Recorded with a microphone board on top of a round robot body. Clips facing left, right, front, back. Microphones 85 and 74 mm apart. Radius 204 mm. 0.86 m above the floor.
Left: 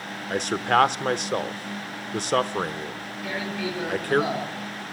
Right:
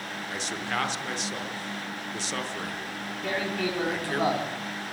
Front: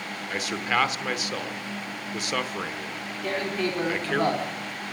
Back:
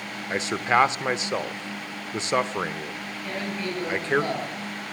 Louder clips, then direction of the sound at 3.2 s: Right 1 dB, front 4 dB; 40° right.